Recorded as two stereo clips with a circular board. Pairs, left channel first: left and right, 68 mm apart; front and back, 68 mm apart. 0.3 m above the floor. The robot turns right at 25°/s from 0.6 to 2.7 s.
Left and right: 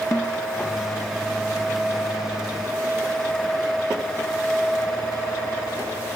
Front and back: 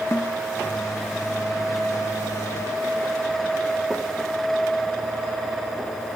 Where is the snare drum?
45° left.